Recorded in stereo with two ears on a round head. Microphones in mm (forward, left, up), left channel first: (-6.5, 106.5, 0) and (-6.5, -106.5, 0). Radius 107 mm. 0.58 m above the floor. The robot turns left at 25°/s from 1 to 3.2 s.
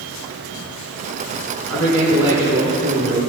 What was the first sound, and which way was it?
A man speaking, straight ahead.